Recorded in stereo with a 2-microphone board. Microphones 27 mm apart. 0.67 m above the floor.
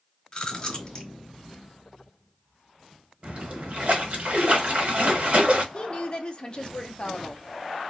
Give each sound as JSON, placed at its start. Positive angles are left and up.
{"t": 0.3, "sound": "chewing", "side_deg": 35, "distance_m": 1.0}
{"t": 3.2, "sound": "a splash", "side_deg": -55, "distance_m": 0.9}
{"t": 5.7, "sound": "a woman speaking", "side_deg": 35, "distance_m": 0.6}